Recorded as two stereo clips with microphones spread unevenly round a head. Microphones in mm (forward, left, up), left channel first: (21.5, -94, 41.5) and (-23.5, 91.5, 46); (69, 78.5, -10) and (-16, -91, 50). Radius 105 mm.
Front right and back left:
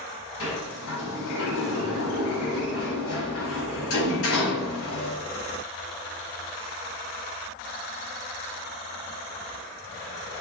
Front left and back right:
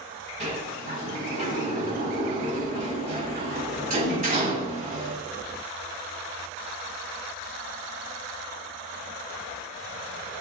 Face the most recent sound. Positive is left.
turn(degrees=-65)